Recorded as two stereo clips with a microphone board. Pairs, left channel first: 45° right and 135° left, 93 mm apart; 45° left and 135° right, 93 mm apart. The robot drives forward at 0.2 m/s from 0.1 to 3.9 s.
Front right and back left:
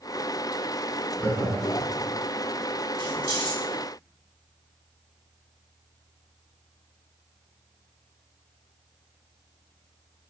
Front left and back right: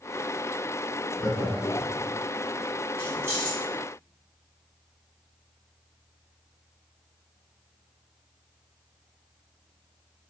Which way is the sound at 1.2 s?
30° left.